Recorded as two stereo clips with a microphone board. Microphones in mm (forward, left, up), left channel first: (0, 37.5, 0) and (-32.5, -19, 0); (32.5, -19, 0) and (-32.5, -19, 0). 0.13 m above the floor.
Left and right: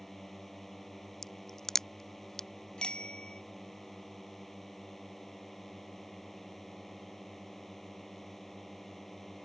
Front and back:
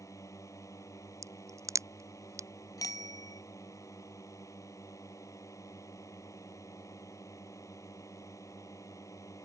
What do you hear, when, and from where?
0.0 s a drone: 25° right
1.2 s a crack: 145° left
2.8 s a bicycle bell: 15° right